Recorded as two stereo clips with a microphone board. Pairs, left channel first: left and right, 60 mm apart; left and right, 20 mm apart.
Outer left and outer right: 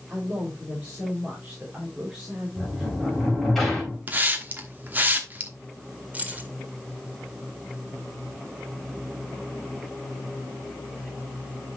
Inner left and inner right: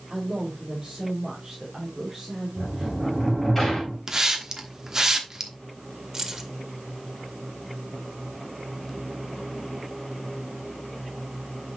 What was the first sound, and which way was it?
A man speaking, 35° right (ahead or behind).